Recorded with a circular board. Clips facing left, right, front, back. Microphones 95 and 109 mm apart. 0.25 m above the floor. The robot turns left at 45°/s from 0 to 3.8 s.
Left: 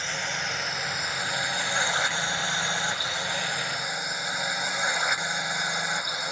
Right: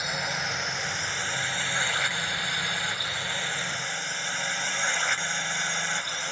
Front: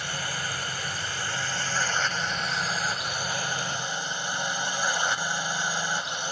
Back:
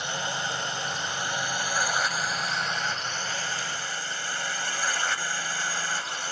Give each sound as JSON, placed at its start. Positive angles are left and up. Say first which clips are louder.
{"t": 0.0, "sound": "a drone", "louder": "right 1 dB, back 2 dB", "azimuth_deg": -155}